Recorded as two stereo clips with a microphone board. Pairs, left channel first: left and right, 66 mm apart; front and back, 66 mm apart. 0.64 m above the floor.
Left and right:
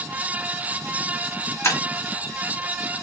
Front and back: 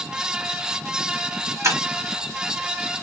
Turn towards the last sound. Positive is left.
turn(degrees=135)